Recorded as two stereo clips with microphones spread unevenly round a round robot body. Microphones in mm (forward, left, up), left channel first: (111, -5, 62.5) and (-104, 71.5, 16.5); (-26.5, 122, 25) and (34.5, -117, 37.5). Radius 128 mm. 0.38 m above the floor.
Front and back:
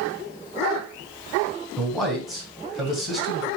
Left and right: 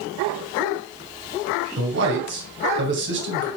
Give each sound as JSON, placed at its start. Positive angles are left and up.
{"t": 1.8, "sound": "a man speaking", "azimuth_deg": -115, "distance_m": 2.5}